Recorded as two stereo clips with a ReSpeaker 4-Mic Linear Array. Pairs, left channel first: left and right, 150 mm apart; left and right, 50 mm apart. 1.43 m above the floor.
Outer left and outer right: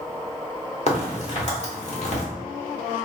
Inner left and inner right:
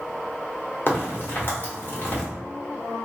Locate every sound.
0.9 s a crack: 45° left (ahead or behind), 1.2 m